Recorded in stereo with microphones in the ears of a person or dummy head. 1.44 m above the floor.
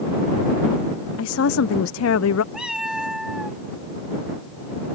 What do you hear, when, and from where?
1.2 s a woman speaking: 80° left
2.5 s a cat meowing: 5° right (ahead or behind)